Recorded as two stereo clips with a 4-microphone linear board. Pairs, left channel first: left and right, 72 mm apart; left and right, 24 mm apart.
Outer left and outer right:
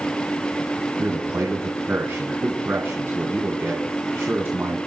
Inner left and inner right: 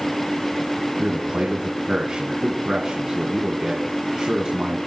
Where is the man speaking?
40° right (ahead or behind), 2.5 m.